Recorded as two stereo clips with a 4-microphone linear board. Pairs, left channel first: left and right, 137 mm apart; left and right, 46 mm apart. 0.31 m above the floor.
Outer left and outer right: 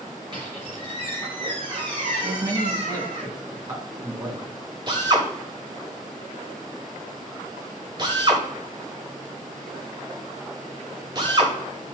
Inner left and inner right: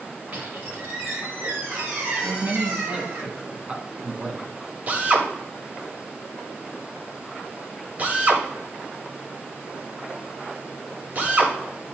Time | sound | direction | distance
0.3 | a squeak | 35° right (ahead or behind) | 3 m
2.2 | a man speaking | 25° right (ahead or behind) | 2.5 m
4.9 | a drill | 35° right (ahead or behind) | 1.7 m